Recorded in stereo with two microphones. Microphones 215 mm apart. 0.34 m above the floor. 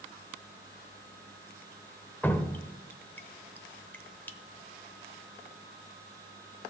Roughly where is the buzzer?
I don't hear a buzzer.